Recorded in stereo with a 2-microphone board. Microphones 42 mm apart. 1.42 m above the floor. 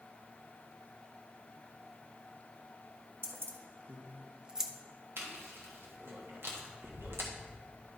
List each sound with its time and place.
3.2 s keys jangling: 65° right (ahead or behind), 1.1 m; by 4.7 s 5° right (ahead or behind), 0.7 m
5.2 s chewing: 65° right (ahead or behind), 1.3 m